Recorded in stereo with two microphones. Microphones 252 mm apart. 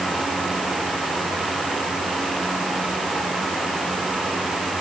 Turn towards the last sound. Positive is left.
No sound to turn to.